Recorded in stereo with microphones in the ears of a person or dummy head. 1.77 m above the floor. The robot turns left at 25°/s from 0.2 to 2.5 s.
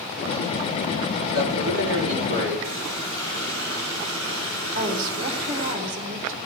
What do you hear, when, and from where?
1.3 s a man speaking: 70° right (ahead or behind), 4 m; by 2.5 s 40° right (ahead or behind), 4 m
2.6 s a running tap: 60° right (ahead or behind), 4.5 m
4.8 s a woman speaking: 45° right (ahead or behind), 1.7 m